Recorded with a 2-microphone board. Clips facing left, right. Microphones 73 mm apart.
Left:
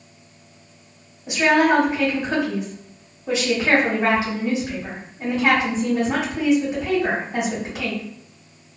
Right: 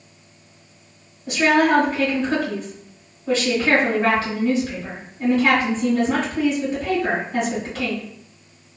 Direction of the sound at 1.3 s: 20° left (ahead or behind).